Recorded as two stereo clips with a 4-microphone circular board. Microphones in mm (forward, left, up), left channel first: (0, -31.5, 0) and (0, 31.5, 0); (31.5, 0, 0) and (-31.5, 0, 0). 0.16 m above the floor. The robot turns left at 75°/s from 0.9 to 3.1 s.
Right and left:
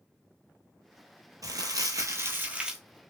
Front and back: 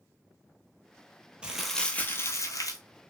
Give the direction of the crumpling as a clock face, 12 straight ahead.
8 o'clock.